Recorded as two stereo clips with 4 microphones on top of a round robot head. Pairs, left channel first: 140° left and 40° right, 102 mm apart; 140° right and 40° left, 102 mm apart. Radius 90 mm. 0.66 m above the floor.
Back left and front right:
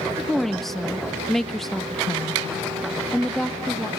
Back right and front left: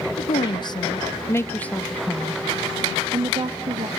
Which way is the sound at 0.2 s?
135° right.